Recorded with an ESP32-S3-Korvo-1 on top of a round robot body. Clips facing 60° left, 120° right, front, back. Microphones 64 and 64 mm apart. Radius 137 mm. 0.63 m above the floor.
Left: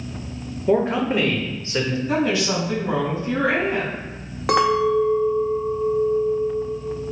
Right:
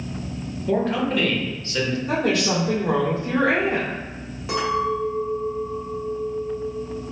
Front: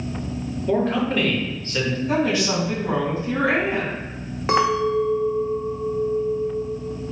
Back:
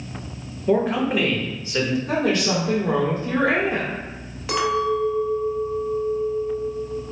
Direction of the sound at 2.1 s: 150° right.